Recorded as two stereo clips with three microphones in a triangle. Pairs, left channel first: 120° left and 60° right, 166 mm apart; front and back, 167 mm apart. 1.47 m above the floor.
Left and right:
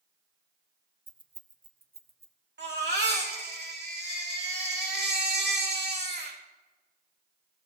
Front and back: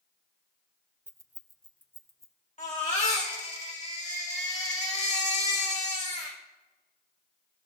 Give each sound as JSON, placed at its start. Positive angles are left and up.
{"t": 1.1, "sound": "keys jangling", "azimuth_deg": -125, "distance_m": 0.5}
{"t": 2.6, "sound": "a baby crying", "azimuth_deg": -50, "distance_m": 2.0}